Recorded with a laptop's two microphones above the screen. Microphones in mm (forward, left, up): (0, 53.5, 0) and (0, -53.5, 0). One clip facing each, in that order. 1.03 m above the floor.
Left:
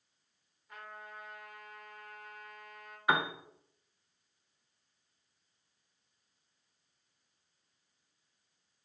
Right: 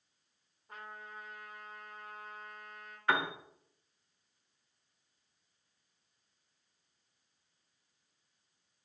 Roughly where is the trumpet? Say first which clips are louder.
Even; right.